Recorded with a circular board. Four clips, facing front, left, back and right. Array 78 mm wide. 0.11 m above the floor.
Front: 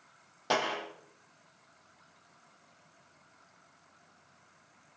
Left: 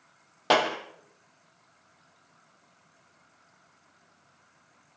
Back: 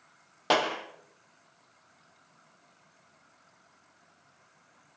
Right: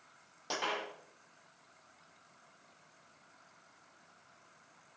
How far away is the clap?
About 4 m.